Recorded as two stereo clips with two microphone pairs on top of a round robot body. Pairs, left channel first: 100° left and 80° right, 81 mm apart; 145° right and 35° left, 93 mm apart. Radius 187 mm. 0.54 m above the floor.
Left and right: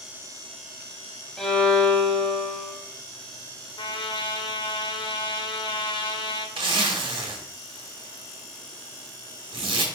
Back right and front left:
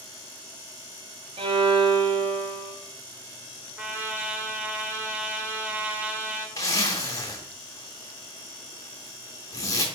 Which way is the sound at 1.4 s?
15° left.